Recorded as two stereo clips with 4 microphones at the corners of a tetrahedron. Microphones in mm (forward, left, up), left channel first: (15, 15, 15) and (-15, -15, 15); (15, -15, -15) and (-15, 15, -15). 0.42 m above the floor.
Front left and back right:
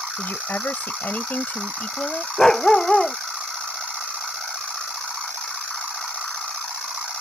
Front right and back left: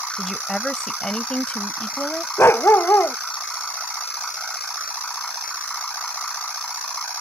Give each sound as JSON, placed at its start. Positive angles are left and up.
{"t": 0.2, "sound": "a woman speaking", "azimuth_deg": 40}
{"t": 2.4, "sound": "a dog barking", "azimuth_deg": -30}